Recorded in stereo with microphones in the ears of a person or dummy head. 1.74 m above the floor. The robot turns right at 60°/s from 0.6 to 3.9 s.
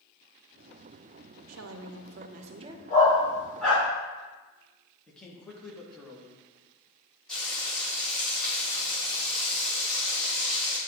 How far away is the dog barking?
About 2.5 m.